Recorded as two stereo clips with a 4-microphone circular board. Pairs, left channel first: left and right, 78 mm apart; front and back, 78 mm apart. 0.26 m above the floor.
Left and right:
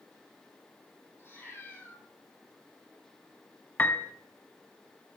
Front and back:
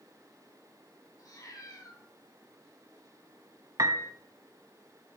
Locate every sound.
1.2 s a cat meowing: 35° left, 4 m
3.8 s a piano: 155° left, 1.0 m